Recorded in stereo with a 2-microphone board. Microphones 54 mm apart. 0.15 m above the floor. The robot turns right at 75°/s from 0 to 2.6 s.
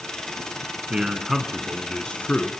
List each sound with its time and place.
0.9 s a man speaking: 20° right (ahead or behind), 1.7 m; by 2.5 s 25° left (ahead or behind), 1.7 m